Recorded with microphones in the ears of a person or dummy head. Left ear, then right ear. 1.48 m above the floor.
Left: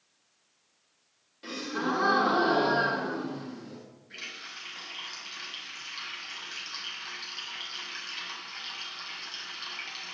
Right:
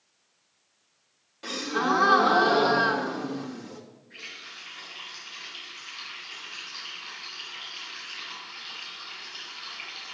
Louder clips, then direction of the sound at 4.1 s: Left 1 dB; 80° left.